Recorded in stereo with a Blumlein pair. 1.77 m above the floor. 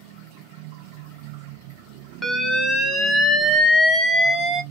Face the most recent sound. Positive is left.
turn(degrees=0)